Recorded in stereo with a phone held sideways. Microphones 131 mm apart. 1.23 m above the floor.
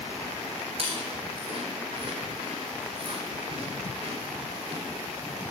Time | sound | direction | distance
0.8 | chewing | 45° right (ahead or behind) | 3.5 m